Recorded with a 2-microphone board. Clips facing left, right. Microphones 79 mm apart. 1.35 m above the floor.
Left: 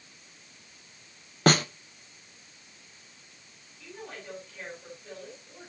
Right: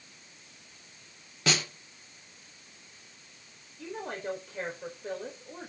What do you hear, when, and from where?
1.5 s a snare drum: 50° left (ahead or behind), 0.8 m
3.8 s a woman speaking: 60° right (ahead or behind), 4.5 m